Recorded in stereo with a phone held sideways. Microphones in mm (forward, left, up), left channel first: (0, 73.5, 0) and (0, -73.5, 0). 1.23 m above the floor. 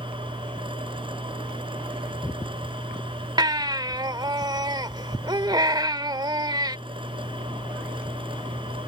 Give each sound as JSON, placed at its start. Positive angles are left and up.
{"t": 0.0, "sound": "a machine running", "side_deg": -35}
{"t": 3.4, "sound": "a baby crying", "side_deg": -30}